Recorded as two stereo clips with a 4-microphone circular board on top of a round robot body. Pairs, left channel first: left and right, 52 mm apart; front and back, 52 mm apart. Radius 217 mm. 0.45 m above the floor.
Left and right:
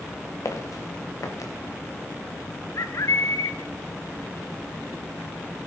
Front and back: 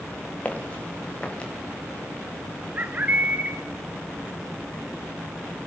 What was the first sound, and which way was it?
Footsteps, 65° left.